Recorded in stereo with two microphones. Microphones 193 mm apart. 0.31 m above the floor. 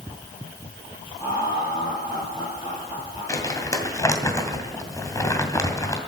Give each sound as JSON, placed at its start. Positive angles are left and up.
{"t": 1.2, "sound": "laughter", "side_deg": -10, "distance_m": 9.5}
{"t": 3.3, "sound": "crumpling", "side_deg": 15, "distance_m": 2.5}